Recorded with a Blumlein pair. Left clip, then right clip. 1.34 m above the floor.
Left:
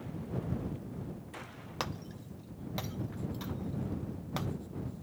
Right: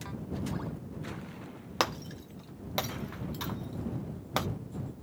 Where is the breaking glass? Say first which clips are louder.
Right 9 dB; 25° right.